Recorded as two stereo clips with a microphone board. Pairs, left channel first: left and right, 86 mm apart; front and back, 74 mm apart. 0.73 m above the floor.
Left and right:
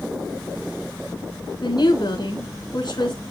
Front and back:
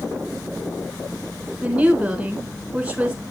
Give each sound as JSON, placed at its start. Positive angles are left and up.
{"t": 1.6, "sound": "a woman speaking", "azimuth_deg": 115, "distance_m": 3.0}